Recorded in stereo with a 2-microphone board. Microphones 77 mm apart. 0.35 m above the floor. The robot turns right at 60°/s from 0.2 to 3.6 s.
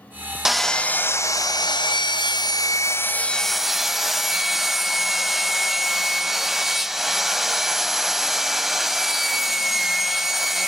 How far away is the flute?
No flute in this recording.